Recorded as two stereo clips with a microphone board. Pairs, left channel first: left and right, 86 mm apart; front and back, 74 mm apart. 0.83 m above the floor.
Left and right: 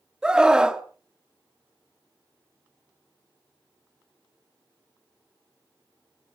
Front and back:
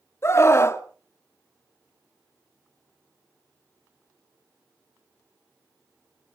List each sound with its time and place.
0.2 s a scream: 15° right, 1.1 m